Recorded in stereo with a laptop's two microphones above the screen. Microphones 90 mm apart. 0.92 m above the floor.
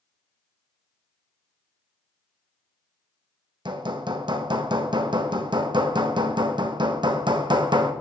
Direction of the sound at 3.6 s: 60° right (ahead or behind).